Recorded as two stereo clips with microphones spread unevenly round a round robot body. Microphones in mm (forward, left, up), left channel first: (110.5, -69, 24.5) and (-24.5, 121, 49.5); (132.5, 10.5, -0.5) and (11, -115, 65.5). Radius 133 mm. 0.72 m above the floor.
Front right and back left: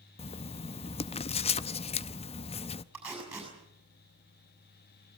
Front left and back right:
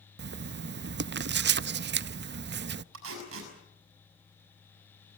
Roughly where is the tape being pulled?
Behind right.